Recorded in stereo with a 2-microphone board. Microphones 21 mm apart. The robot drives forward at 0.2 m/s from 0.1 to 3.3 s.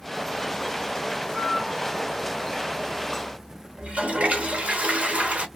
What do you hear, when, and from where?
1.2 s a flute: 55° right (ahead or behind), 1.7 m; by 3.3 s 45° right (ahead or behind), 1.9 m
3.8 s a toilet flushing: 85° right, 1.0 m